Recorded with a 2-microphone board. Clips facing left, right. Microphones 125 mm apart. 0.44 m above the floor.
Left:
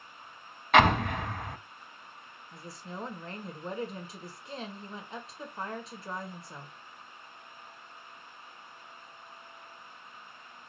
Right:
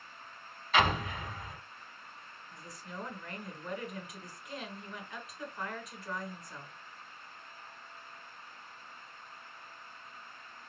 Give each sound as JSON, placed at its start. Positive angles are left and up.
{"t": 0.7, "sound": "an explosion", "side_deg": 70, "distance_m": 0.6}
{"t": 2.5, "sound": "a woman speaking", "side_deg": 30, "distance_m": 1.3}